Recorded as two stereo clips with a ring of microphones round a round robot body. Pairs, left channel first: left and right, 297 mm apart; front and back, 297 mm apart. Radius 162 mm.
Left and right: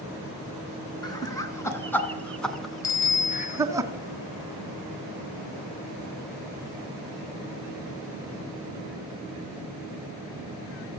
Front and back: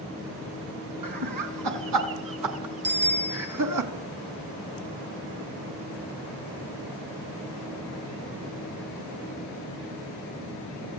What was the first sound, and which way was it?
Laughter, 165° left.